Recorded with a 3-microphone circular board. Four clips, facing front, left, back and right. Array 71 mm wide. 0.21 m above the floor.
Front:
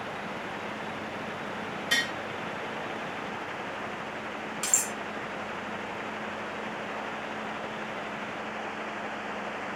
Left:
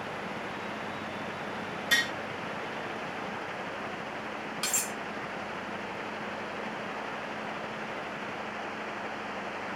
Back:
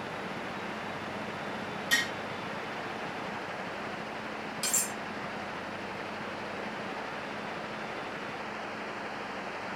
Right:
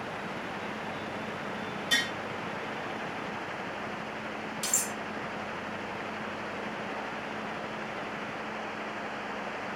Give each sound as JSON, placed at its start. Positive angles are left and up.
{"t": 1.9, "sound": "tapping", "azimuth_deg": 40, "distance_m": 3.0}
{"t": 4.6, "sound": "cutlery clinking", "azimuth_deg": 70, "distance_m": 1.0}